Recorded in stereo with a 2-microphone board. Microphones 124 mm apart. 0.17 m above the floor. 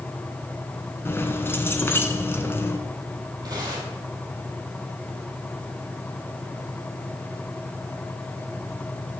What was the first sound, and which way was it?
Keys jangling, 20° left (ahead or behind).